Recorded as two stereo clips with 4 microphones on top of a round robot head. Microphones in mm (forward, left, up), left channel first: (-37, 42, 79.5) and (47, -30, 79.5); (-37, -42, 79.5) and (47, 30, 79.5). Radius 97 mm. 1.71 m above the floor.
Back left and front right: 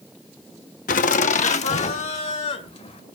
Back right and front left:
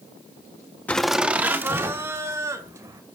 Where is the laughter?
145° left, 0.6 m; by 3.0 s 105° left, 3 m.